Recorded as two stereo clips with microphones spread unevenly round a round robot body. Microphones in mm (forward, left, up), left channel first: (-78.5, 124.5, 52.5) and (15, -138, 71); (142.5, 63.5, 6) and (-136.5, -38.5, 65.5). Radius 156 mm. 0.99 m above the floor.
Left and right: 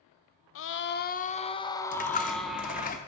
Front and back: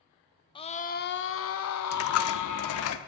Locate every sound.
0.6 s a scream: 85° left, 0.8 m; by 2.9 s 15° left, 1.4 m
1.9 s a dropped coin: 50° left, 0.6 m